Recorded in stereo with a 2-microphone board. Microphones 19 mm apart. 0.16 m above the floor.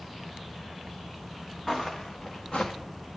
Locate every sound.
1.7 s footsteps: 20° left (ahead or behind), 0.9 m; by 2.7 s 50° left (ahead or behind), 1.0 m